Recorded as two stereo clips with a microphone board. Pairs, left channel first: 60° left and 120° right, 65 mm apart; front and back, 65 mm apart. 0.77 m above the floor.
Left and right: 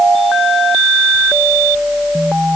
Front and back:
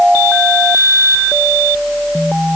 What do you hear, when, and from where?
Only background noise.